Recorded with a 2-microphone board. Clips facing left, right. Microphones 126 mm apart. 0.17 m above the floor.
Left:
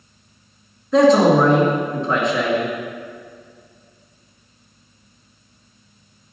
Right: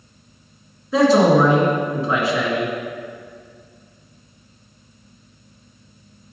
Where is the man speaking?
5° right (ahead or behind), 1.9 m.